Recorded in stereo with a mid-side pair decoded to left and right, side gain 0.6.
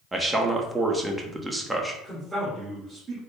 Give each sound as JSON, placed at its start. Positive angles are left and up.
{"t": 0.1, "sound": "a man speaking", "azimuth_deg": -15, "distance_m": 0.8}
{"t": 2.0, "sound": "a man speaking", "azimuth_deg": -5, "distance_m": 1.6}